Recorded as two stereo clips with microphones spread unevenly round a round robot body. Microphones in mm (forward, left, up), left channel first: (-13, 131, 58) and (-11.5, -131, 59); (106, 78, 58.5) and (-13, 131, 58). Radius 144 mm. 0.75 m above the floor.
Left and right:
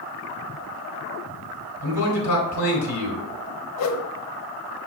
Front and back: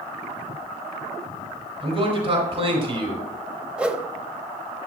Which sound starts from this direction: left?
A whoosh, at 3.8 s.